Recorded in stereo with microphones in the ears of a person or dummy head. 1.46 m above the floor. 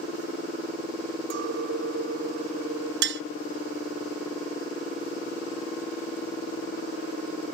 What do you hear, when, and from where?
1.3 s a clink: 75° right (ahead or behind)
3.0 s tapping: 70° right (ahead or behind)